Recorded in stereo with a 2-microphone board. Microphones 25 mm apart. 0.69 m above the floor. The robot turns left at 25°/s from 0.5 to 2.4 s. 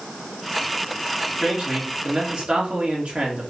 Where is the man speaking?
30° right (ahead or behind), 1.5 m; by 3.5 s 45° right (ahead or behind), 1.5 m.